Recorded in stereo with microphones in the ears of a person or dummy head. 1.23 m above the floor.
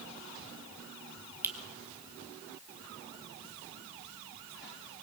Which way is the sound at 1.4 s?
10° right (ahead or behind).